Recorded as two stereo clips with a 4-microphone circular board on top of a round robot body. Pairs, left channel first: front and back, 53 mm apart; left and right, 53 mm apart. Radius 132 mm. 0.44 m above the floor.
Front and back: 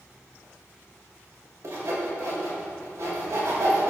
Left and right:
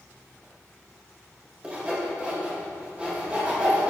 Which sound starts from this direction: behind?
Sawing, at 1.6 s.